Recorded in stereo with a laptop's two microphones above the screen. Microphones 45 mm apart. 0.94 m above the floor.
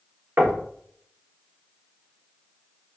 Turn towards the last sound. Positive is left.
turn(degrees=-50)  # may be behind; listen again after turning